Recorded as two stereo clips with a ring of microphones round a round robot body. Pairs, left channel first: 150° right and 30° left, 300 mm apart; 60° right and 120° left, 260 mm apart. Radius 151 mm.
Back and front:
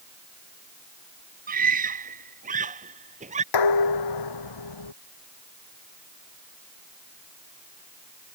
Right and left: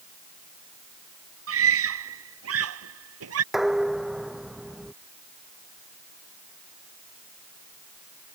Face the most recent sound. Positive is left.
turn(degrees=-150)